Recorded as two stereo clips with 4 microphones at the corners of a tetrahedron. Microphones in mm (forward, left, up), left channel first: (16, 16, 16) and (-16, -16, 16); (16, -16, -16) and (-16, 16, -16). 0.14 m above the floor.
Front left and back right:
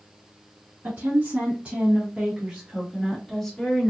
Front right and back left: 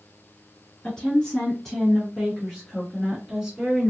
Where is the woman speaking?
110° right, 1.8 m; by 3.9 s 85° left, 1.4 m.